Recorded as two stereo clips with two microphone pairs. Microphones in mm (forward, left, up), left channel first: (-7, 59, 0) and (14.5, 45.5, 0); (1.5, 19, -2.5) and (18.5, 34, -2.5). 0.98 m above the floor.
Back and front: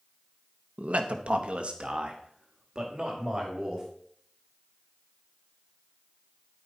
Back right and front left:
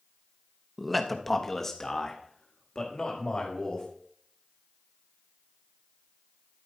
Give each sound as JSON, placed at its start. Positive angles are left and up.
{"t": 0.8, "sound": "a man speaking", "azimuth_deg": -45, "distance_m": 0.9}